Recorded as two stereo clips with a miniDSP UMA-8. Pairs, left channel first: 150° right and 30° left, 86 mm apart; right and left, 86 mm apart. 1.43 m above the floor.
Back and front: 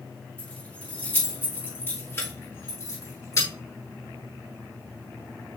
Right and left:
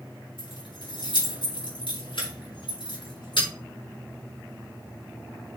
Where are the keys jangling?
75° right, 3.5 m; by 3.5 s 100° right, 3.5 m.